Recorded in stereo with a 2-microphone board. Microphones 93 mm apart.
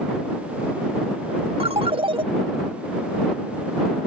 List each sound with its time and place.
1.6 s a ringtone: 75° right (ahead or behind)